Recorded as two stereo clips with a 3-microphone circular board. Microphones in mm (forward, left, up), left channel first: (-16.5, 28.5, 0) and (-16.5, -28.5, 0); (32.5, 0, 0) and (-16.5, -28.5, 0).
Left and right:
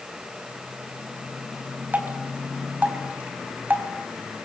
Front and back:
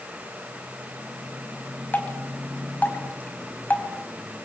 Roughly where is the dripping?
Ahead right.